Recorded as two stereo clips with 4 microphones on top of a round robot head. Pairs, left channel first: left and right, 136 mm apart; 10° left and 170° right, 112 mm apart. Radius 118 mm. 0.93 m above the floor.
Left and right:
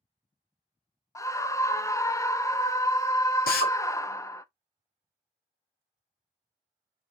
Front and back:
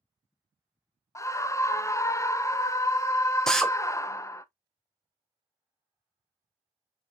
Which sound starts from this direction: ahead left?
A scream, at 1.1 s.